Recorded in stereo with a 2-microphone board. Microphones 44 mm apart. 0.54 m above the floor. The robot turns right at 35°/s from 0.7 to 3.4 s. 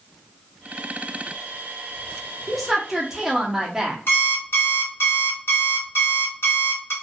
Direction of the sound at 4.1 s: 60° left (ahead or behind).